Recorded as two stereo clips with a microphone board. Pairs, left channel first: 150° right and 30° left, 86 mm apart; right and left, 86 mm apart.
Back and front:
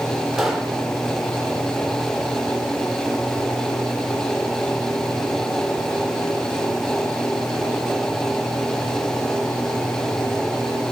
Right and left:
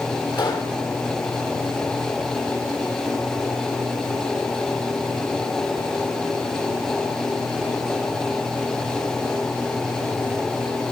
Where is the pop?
55° right, 2.5 m.